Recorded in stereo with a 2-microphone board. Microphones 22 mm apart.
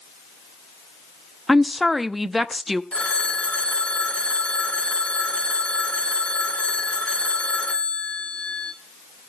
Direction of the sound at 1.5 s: Centre (ahead or behind).